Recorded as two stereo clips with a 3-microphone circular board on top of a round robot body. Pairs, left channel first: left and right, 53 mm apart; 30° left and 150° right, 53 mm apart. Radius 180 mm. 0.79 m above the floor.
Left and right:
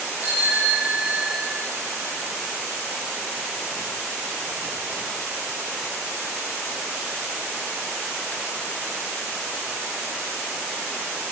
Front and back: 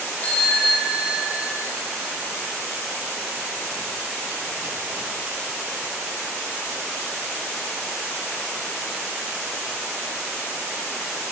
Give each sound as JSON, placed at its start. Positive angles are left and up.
{"t": 0.2, "sound": "a bicycle bell", "azimuth_deg": -30, "distance_m": 5.5}